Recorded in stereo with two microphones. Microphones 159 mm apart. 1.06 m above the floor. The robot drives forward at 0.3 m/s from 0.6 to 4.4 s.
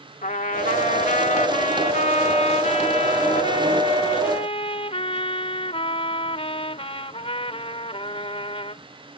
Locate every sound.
0.2 s a trumpet: 55° left (ahead or behind); by 8.8 s 35° left (ahead or behind)